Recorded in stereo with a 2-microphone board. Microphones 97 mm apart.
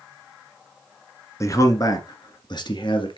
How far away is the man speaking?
About 1.6 m.